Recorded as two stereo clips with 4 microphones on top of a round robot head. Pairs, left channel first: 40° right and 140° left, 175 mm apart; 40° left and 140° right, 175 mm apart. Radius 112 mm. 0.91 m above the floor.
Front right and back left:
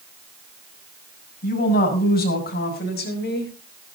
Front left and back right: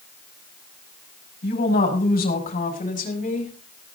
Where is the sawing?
I don't hear sawing.